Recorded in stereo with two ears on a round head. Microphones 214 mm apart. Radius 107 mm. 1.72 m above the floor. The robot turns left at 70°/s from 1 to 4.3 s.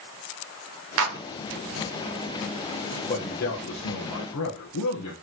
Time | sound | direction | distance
1.0 | a clap | 60° right (ahead or behind) | 1.6 m
3.1 | a man speaking | 160° left | 2 m